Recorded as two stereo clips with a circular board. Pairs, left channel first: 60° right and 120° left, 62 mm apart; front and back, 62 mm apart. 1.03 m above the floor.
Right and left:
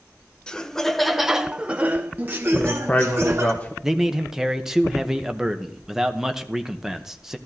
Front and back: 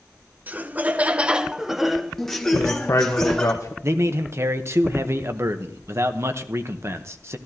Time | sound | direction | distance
0.5 | laughter | 130° right | 0.8 m
2.5 | a man speaking | straight ahead | 1.1 m
3.8 | a man speaking | 160° right | 0.9 m